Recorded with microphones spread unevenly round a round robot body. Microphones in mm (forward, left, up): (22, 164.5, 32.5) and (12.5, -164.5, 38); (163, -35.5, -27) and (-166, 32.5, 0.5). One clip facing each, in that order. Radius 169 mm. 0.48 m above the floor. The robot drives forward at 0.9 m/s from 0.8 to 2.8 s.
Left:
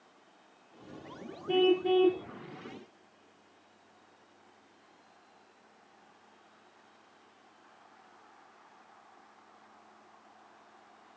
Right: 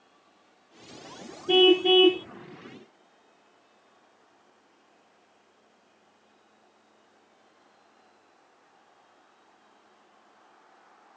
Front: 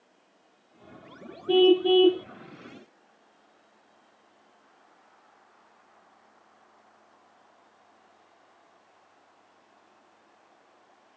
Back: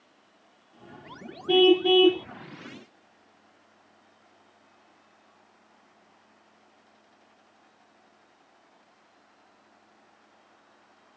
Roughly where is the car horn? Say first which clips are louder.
Right 6 dB, even; behind right.